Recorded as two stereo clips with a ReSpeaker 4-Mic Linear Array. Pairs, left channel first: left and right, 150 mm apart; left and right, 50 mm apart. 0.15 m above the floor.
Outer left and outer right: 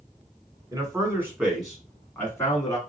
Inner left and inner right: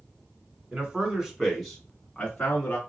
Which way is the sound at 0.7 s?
25° right (ahead or behind).